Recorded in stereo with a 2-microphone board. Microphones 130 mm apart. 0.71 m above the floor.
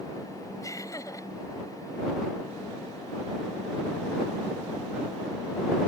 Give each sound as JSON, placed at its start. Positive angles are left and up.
{"t": 0.6, "sound": "laughter", "side_deg": 25}